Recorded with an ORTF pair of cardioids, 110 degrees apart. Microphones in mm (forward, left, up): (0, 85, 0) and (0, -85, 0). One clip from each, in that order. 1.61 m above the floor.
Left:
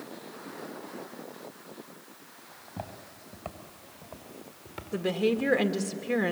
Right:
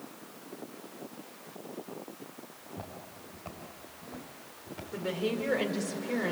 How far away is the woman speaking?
About 2.5 m.